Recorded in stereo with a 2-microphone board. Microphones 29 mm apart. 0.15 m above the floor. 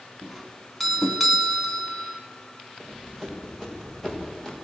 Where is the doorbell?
Centre (ahead or behind), 1.6 m.